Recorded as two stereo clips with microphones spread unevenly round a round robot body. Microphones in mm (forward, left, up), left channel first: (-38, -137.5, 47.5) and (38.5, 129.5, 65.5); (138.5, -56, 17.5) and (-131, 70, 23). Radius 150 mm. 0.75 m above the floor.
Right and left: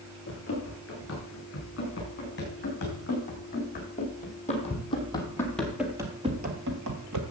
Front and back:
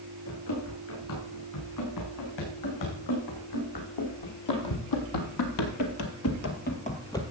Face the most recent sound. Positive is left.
turn(degrees=55)